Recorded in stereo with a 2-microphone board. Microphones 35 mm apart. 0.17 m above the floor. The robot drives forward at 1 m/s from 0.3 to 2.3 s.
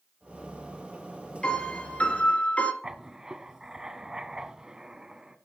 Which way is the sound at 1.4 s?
30° left (ahead or behind).